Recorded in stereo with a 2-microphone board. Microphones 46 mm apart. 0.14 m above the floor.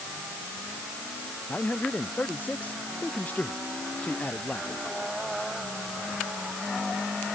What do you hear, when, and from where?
1.5 s a man speaking: 35° left (ahead or behind)